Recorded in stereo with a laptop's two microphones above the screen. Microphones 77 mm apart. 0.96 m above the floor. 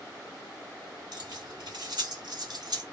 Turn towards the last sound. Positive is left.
turn(degrees=-60)  # may be behind; listen again after turning